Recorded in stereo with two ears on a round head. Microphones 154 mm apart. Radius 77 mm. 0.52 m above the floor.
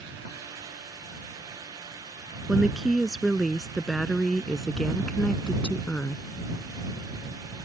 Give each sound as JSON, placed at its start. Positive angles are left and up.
{"t": 2.5, "sound": "a woman speaking", "side_deg": -5}